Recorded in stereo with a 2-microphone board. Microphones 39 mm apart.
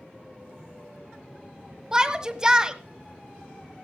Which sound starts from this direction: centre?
A shout, at 1.9 s.